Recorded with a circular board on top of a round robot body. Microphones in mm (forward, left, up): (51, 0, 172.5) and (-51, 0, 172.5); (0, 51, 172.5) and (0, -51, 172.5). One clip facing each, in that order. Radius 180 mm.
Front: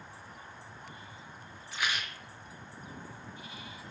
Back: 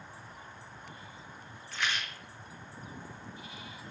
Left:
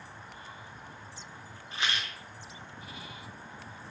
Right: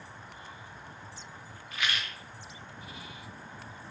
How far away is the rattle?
About 0.6 m.